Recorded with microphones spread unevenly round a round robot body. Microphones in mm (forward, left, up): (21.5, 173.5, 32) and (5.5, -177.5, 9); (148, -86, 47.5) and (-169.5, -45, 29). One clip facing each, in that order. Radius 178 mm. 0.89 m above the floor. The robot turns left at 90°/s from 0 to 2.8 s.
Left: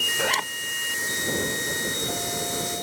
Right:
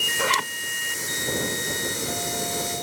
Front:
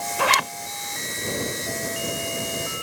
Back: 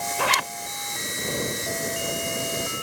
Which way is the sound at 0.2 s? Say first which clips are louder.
Right 1 dB, front 4 dB; 5° right.